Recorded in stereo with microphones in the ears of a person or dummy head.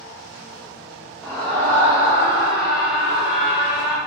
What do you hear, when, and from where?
1.2 s a scream: 10° left (ahead or behind), 3 m; by 4.0 s 25° left (ahead or behind), 7 m